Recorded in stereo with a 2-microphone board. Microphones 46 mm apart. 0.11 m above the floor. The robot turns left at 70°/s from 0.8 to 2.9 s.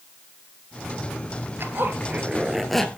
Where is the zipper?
105° right, 1.6 m; by 2.9 s 165° left, 1.6 m.